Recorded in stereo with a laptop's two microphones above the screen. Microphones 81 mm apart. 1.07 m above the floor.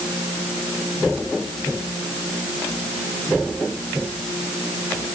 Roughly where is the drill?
No drill in this recording.